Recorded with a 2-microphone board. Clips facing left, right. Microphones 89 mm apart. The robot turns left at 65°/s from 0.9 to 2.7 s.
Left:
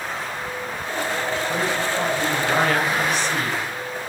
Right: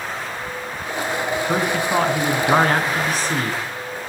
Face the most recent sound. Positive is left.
turn(degrees=-135)